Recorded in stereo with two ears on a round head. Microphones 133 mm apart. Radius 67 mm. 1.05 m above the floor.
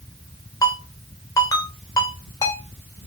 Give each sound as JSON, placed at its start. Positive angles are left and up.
{"t": 0.6, "sound": "a ringtone", "side_deg": 25, "distance_m": 2.5}